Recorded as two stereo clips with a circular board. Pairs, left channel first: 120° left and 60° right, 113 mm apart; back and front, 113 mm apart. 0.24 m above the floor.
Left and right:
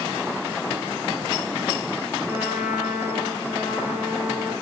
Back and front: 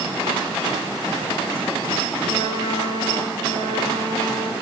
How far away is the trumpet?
About 4 m.